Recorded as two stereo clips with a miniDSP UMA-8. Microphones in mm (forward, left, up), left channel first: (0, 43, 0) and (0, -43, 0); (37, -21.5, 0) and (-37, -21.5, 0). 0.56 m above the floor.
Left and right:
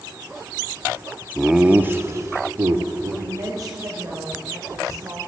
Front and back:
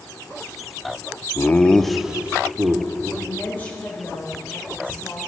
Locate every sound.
1.4 s laughter: straight ahead, 0.6 m; by 3.1 s 130° right, 1.3 m
3.2 s a woman speaking: 60° right, 1.7 m